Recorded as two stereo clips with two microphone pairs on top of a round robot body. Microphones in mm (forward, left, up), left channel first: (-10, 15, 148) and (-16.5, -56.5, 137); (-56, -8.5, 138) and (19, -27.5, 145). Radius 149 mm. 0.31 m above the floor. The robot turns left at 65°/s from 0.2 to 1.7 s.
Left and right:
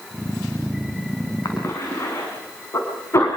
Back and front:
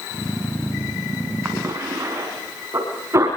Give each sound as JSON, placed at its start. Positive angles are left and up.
{"t": 1.4, "sound": "a cough", "azimuth_deg": 50, "distance_m": 4.5}